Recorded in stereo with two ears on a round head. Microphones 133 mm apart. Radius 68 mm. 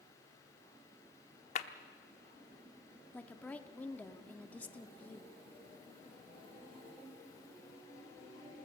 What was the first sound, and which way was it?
A clap, 45° left (ahead or behind).